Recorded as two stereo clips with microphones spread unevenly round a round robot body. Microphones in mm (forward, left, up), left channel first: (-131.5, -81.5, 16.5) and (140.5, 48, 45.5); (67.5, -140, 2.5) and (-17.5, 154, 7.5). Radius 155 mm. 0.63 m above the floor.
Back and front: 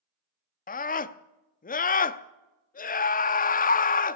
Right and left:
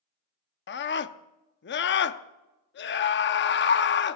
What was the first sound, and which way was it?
A scream, 110° right.